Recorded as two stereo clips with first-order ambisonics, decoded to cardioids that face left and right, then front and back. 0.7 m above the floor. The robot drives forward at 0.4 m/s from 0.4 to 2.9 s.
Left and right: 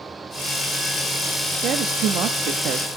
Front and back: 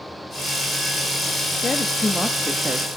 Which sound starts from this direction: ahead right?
A woman speaking, at 1.6 s.